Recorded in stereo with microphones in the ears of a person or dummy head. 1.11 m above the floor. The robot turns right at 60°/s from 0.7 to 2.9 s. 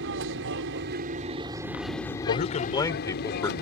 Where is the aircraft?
75° right; by 3.6 s 60° left.